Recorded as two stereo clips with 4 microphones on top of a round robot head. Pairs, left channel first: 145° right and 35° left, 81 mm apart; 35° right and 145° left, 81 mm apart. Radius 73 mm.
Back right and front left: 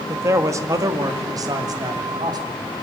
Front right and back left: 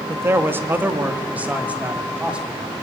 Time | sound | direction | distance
0.1 | a man speaking | 90° left | 1.7 m